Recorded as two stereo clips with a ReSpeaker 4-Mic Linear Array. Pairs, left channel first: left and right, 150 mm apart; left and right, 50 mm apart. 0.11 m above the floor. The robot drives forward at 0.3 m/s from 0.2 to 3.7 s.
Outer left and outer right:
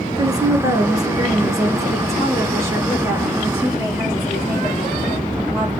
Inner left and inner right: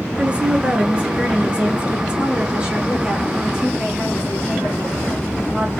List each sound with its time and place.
0.2 s a woman speaking: 25° right (ahead or behind), 1.1 m; by 5.7 s 15° right (ahead or behind), 1.8 m